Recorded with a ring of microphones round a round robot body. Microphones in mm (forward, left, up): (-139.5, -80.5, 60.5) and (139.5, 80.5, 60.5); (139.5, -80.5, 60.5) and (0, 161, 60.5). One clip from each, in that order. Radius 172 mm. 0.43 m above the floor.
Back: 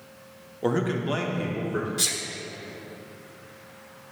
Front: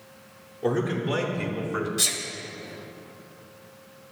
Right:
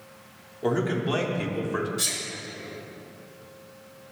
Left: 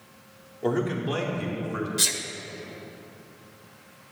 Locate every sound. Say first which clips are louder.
0.6 s a man speaking: even, right 1 dB; 150° right, 0.8 m; by 1.9 s 15° right, 0.9 m
2.0 s a sneeze: front 1 dB, left 3 dB; 120° left, 1.1 m